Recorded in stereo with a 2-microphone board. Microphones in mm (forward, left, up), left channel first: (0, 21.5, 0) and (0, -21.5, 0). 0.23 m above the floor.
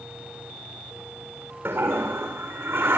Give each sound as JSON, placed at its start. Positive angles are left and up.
{"t": 1.6, "sound": "a toilet flushing", "side_deg": -70, "distance_m": 3.5}